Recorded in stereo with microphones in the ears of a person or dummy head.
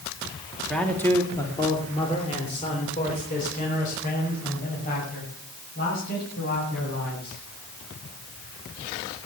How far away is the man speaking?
About 2 m.